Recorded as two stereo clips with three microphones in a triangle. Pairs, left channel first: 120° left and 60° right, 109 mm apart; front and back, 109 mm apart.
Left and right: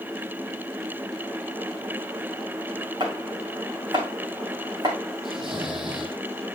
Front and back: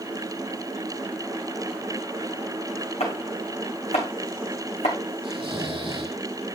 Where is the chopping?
15° right, 4 m.